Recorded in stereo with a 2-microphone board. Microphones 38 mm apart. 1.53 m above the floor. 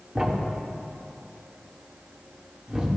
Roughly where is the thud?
Centre.